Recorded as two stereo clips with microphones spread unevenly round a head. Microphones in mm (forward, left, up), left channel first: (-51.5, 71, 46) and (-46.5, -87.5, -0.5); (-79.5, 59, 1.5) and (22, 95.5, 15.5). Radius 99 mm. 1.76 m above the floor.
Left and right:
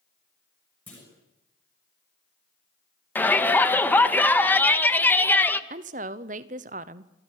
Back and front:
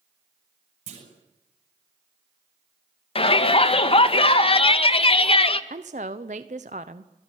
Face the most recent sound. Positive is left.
turn(degrees=-35)